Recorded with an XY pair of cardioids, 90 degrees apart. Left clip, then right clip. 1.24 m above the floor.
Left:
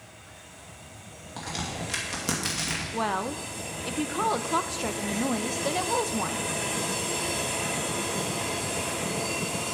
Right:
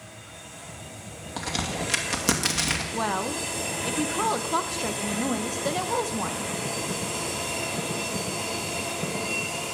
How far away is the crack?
About 2.5 m.